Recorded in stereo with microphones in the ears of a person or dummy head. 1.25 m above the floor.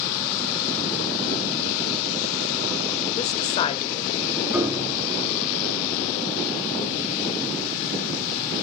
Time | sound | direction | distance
3.2 | a woman speaking | 35° left (ahead or behind) | 1.5 m
4.5 | a piano | 5° right (ahead or behind) | 6 m